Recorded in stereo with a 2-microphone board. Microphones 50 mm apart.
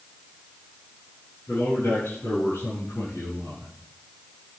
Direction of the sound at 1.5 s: 85° left.